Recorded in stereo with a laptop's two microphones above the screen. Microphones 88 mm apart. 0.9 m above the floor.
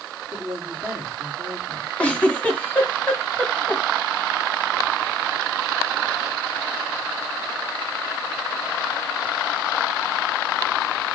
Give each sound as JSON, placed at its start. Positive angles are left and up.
{"t": 0.3, "sound": "a woman speaking", "side_deg": -5, "distance_m": 2.5}
{"t": 2.0, "sound": "a giggle", "side_deg": 15, "distance_m": 1.6}